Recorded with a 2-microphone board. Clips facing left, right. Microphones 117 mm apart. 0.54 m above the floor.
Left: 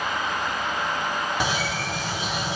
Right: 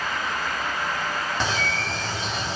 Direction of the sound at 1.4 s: 10° left (ahead or behind).